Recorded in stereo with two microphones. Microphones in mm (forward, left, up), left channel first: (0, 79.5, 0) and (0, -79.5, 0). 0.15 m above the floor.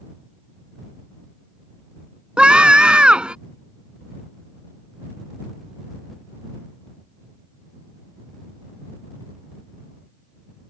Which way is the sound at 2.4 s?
5° right (ahead or behind).